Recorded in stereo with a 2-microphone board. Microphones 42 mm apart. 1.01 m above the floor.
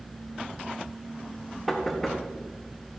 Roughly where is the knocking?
Centre.